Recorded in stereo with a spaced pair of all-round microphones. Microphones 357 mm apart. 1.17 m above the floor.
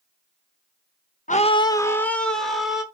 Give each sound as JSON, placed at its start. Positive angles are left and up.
{"t": 1.3, "sound": "a scream", "side_deg": 20, "distance_m": 1.0}